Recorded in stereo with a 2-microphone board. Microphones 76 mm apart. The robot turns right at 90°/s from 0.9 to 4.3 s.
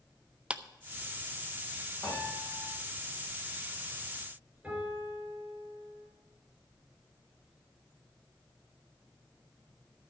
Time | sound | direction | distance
0.5 | a clap | 15° right (ahead or behind) | 0.5 m
2.0 | a piano | 165° left | 7.5 m
4.6 | a piano | 15° right (ahead or behind) | 7 m